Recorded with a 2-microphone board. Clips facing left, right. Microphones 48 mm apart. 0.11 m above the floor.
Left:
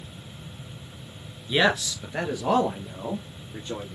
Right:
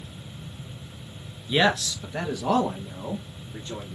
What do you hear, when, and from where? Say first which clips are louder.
1.5 s a man speaking: even; 5° left (ahead or behind), 1.2 m; by 4.0 s 25° left (ahead or behind), 3 m